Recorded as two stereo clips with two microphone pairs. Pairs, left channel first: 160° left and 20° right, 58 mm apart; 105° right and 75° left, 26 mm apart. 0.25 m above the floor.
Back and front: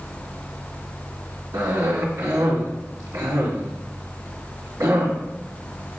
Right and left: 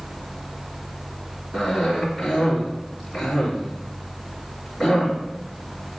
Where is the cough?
10° right, 2.5 m.